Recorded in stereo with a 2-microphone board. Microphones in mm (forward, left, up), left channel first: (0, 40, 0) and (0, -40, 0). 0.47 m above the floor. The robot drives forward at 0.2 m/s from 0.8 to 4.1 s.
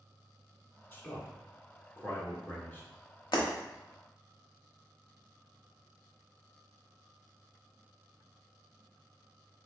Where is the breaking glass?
75° left (ahead or behind), 1.0 m.